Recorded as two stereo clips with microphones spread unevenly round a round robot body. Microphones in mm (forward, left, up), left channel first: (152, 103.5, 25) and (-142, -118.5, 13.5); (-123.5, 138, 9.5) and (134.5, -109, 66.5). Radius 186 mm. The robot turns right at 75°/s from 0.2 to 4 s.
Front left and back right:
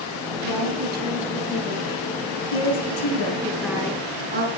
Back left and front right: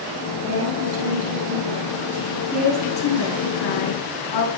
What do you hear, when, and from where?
0.4 s a woman speaking: 115° right, 8 m; by 4.5 s 150° left, 8 m